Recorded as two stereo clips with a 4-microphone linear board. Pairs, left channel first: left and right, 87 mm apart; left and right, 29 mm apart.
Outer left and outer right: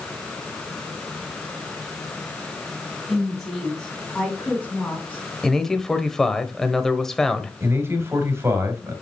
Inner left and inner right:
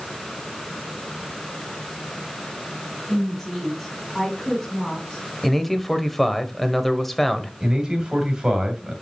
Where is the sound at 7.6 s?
30° right (ahead or behind), 2 m.